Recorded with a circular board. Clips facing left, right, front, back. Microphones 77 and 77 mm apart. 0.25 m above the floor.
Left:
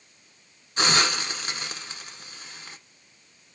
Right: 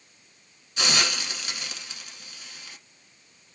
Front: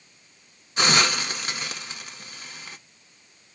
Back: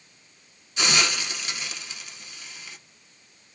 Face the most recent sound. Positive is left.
turn(degrees=40)